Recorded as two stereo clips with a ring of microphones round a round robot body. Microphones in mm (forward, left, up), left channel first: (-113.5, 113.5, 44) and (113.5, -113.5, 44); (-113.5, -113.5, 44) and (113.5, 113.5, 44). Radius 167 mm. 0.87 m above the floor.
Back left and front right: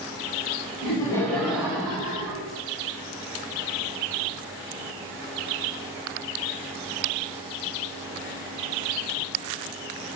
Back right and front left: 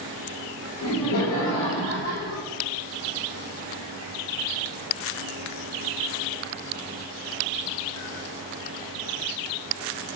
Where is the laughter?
155° right, 1.1 m; by 2.4 s 85° right, 1.0 m.